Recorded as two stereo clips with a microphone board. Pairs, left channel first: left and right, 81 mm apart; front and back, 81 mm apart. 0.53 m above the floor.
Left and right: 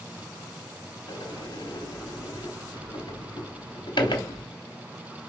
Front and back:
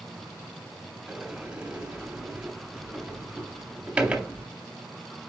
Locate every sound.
1.1 s a sliding door: 105° left, 0.9 m